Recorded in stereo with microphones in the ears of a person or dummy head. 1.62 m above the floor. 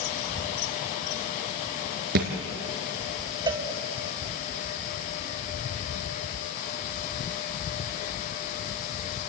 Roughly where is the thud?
Right.